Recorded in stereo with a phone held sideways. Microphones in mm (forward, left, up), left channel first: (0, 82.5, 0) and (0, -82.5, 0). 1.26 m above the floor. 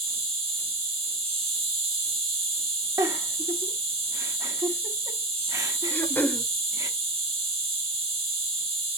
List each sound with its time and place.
0.0 s an insect: 35° right (ahead or behind), 2 m
3.0 s a giggle: 20° right (ahead or behind), 0.8 m
5.9 s throat clearing: 10° left (ahead or behind), 0.6 m